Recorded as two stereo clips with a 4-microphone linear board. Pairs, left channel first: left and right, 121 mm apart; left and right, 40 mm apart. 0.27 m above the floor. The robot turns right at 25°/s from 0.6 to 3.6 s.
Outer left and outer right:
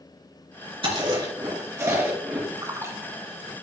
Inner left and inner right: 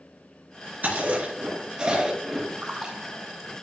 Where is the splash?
30° right (ahead or behind), 1.2 m; by 3.5 s 10° right (ahead or behind), 1.2 m.